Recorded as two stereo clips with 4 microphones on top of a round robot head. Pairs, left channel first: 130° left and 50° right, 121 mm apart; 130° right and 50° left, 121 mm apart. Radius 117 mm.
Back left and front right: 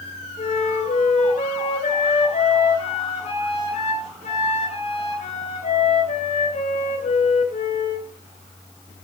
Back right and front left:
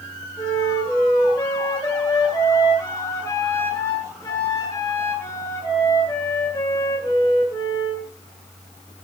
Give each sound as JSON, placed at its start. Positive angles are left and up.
{"t": 0.4, "sound": "a flute", "azimuth_deg": 165, "distance_m": 2.0}